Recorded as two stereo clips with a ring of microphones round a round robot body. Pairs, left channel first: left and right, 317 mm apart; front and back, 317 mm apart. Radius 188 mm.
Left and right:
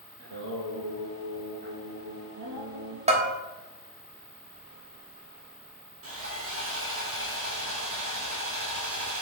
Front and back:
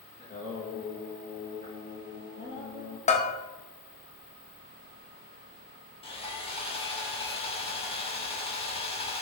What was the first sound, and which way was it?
Singing, 70° right.